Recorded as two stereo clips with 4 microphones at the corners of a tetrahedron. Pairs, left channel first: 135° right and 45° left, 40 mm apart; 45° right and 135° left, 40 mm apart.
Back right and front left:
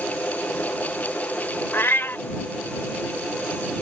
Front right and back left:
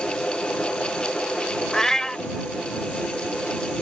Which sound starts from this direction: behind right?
A cat meowing, at 1.7 s.